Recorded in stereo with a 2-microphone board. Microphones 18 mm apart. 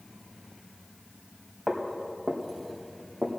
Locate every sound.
1.7 s footsteps: 40° right (ahead or behind), 3.5 m; by 3.3 s 80° right, 3 m